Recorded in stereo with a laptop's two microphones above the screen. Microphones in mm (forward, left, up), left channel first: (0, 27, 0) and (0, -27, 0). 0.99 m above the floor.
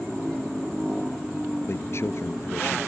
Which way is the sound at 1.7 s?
55° left (ahead or behind).